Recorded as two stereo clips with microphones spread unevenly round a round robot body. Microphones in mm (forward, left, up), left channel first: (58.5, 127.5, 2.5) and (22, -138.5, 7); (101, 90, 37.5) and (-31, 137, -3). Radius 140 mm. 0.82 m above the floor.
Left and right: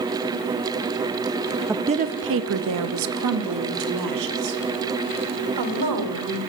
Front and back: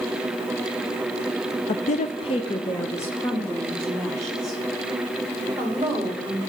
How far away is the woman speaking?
About 0.6 m.